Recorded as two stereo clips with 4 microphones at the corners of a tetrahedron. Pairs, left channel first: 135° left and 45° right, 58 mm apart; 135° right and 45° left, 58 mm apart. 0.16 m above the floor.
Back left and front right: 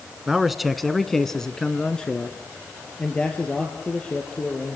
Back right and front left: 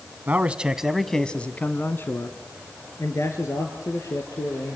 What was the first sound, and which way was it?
A man speaking, 35° left.